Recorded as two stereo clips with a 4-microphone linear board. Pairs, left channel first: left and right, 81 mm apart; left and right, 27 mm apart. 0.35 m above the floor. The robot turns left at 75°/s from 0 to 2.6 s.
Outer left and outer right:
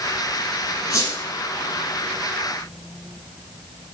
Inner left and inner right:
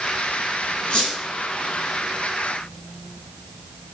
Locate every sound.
0.9 s a squeak: 45° left (ahead or behind), 2.5 m; by 1.1 s 25° left (ahead or behind), 2.5 m